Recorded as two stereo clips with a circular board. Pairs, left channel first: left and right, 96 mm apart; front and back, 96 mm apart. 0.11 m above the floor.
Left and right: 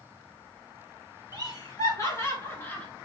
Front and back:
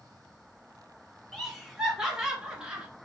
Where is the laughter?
95° left, 2.5 m; by 2.9 s 130° left, 1.7 m.